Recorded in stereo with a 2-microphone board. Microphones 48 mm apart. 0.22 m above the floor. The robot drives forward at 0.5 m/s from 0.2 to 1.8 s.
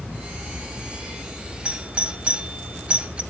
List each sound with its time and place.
1.6 s a doorbell: 25° right (ahead or behind), 1.6 m